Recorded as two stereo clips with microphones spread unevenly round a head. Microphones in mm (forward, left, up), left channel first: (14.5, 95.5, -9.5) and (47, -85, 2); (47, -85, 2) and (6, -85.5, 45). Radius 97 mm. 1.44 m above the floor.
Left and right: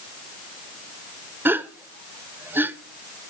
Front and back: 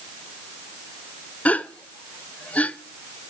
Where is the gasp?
Straight ahead, 0.6 m.